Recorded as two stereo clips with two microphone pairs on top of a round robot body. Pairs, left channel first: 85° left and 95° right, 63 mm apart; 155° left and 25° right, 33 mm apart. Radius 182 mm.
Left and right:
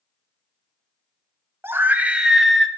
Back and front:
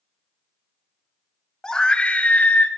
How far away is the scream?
About 1.9 m.